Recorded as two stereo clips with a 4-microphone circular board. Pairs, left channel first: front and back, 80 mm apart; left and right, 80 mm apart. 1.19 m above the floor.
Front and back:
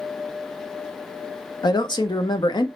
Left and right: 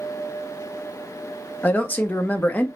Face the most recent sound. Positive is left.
turn(degrees=20)